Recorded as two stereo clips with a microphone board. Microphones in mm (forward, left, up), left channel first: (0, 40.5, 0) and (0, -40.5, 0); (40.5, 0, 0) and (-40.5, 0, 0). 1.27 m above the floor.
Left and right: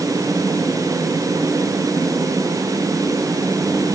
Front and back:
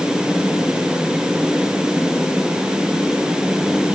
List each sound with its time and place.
Only background noise.